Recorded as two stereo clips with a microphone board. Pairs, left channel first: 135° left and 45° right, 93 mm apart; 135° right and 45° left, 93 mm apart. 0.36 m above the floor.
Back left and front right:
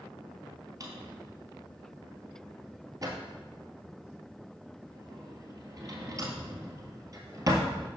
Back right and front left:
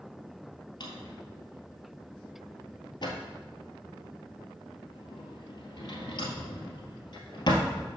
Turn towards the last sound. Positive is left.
turn(degrees=-95)